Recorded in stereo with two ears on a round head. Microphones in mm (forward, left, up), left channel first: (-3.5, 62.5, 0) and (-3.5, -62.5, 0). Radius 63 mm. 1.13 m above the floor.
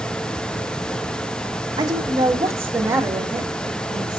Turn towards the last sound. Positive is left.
turn(degrees=-5)  # may be behind; listen again after turning